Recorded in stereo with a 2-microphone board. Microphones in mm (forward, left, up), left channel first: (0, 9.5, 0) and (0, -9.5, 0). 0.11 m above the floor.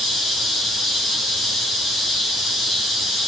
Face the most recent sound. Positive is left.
No sound to turn to.